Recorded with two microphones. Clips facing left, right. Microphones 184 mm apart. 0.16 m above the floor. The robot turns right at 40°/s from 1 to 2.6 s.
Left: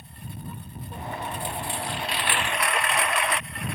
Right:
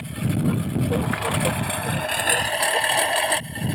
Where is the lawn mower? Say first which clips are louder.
Right 17 dB; 95° right; by 3.8 s 30° right.